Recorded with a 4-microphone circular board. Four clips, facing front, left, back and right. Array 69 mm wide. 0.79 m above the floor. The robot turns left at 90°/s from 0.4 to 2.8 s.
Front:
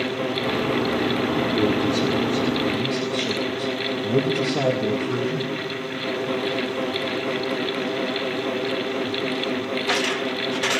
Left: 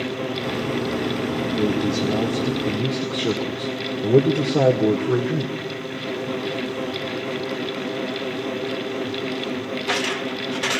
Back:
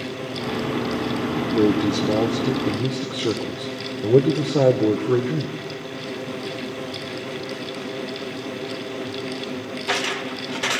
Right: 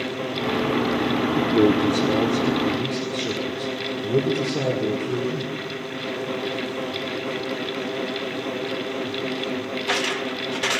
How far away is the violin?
No violin in this recording.